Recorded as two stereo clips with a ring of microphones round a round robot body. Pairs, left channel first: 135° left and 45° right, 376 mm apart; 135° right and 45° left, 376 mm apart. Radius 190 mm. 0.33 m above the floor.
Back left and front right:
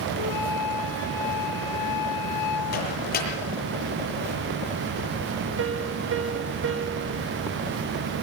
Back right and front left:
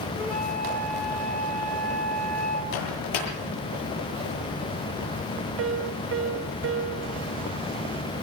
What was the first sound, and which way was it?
A flute, 135° left.